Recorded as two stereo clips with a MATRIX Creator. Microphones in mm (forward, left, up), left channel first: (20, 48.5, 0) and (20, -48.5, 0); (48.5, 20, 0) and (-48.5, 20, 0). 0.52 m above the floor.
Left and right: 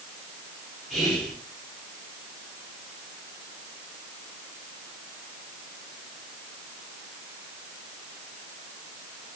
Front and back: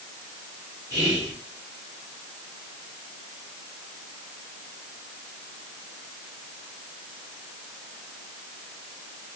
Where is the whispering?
Straight ahead, 1.3 m.